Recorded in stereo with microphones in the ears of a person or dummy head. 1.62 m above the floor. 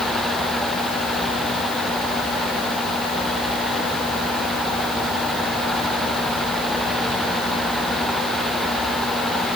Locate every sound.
Only background noise.